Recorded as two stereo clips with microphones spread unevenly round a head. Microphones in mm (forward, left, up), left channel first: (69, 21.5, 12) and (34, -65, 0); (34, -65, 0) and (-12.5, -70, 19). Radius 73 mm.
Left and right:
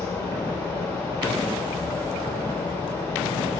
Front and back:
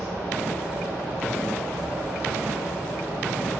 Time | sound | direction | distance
0.0 | a fan | 145° left | 1.0 m